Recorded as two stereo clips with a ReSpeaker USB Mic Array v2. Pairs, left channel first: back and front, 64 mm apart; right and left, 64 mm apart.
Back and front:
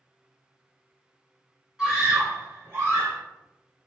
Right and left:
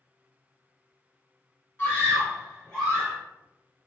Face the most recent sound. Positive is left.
turn(degrees=0)